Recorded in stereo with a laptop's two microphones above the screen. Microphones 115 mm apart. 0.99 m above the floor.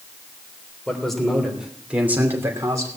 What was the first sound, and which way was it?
A man speaking, 5° left (ahead or behind).